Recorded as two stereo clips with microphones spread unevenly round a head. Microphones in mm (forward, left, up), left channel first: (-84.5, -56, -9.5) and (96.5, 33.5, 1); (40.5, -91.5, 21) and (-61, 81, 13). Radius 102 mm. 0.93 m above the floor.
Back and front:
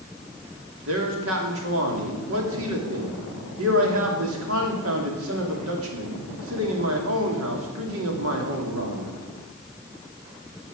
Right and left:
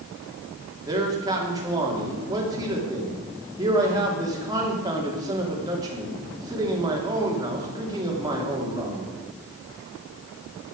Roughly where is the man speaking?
Ahead left.